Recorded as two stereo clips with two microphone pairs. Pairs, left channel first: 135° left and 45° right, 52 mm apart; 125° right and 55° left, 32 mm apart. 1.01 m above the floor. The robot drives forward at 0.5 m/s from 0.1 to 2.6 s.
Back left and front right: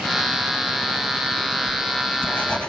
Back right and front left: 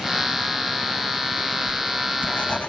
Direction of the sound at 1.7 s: 160° right.